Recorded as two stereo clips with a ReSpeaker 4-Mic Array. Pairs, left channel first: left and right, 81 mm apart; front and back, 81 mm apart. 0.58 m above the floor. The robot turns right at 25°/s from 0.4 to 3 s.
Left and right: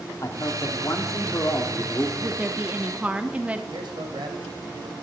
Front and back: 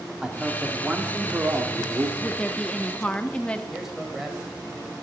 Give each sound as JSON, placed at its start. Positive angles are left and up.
{"t": 0.2, "sound": "a man speaking", "azimuth_deg": 100, "distance_m": 1.5}
{"t": 2.2, "sound": "a woman speaking", "azimuth_deg": -70, "distance_m": 0.6}
{"t": 3.7, "sound": "a man speaking", "azimuth_deg": -95, "distance_m": 2.5}